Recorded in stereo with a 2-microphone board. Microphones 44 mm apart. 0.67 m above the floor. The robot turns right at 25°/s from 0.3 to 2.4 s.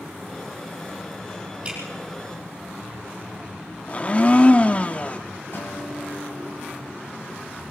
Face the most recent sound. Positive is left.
turn(degrees=55)  # may be behind; listen again after turning